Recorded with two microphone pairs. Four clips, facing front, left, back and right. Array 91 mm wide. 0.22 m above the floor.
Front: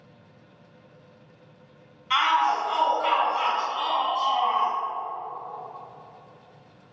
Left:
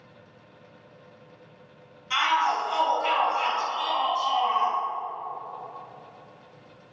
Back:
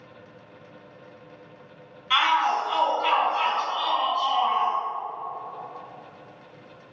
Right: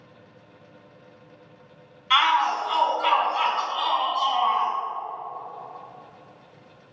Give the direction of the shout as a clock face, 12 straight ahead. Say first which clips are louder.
Right 3 dB, even; 3 o'clock.